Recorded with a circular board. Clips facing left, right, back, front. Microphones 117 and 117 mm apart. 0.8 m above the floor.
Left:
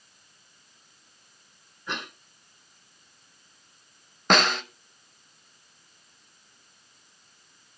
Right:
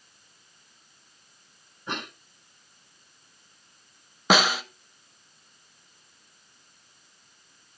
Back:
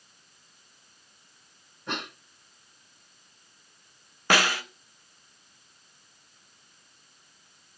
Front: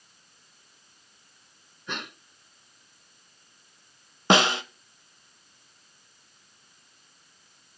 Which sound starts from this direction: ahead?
A snare drum, at 4.3 s.